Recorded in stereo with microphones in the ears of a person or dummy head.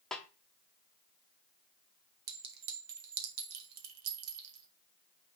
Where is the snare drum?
5° left (ahead or behind), 0.8 m.